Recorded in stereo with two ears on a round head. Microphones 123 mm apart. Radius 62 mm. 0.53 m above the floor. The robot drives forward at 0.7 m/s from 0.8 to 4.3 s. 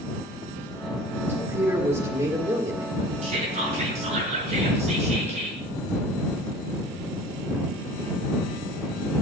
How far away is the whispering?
About 6.5 m.